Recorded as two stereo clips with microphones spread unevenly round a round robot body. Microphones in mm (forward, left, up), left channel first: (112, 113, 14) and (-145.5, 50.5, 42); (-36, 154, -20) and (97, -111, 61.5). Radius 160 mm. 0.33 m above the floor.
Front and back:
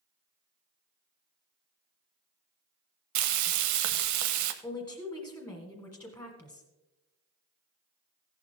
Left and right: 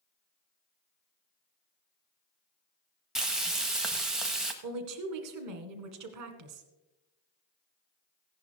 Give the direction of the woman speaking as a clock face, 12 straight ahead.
2 o'clock.